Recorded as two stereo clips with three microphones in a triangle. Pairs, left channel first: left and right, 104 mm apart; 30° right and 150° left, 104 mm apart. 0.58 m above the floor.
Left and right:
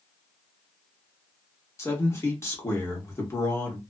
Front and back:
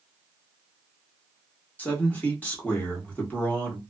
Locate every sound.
1.8 s a man speaking: 40° left, 1.2 m